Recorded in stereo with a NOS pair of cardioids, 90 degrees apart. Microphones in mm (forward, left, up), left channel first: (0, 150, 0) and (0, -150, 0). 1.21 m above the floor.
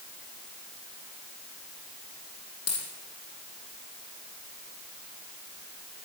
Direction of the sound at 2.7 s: 55° left.